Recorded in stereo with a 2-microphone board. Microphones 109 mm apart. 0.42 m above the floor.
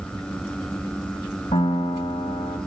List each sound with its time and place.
1.5 s a piano: 65° left (ahead or behind), 1.9 m